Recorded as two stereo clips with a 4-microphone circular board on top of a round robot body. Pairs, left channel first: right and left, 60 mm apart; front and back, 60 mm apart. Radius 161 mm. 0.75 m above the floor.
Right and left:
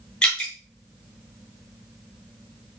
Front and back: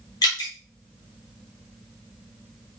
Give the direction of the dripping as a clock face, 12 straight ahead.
1 o'clock.